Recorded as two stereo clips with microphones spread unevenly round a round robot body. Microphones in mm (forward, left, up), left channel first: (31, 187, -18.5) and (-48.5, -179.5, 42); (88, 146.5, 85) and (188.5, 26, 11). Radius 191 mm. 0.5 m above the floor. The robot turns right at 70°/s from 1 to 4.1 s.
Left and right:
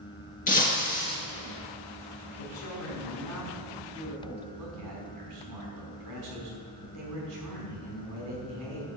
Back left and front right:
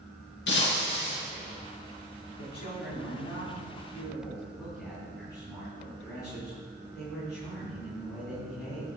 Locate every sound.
0.5 s breaking glass: 150° left, 3.5 m; by 1.1 s 160° left, 3.5 m
2.4 s a man speaking: 95° left, 5 m; by 8.9 s 145° right, 5 m